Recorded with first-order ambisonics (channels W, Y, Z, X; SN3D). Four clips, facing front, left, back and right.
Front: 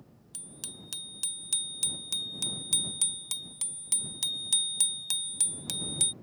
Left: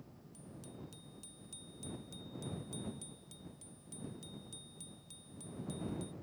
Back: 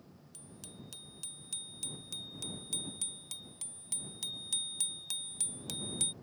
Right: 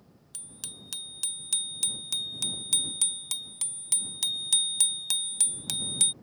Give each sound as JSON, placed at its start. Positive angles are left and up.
{"t": 0.3, "sound": "a bicycle bell", "azimuth_deg": -55}